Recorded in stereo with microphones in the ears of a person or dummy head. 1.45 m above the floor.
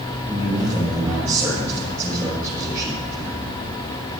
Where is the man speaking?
15° right (ahead or behind), 8 m.